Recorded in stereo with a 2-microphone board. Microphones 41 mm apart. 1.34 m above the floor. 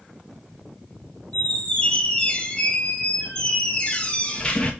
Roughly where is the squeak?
Left.